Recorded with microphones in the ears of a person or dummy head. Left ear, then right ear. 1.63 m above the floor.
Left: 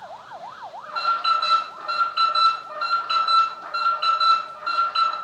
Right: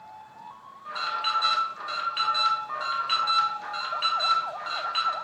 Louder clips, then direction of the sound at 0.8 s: Left 7 dB; 45° right (ahead or behind).